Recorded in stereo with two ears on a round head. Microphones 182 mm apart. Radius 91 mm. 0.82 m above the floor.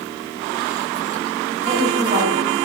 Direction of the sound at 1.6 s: 30° right (ahead or behind).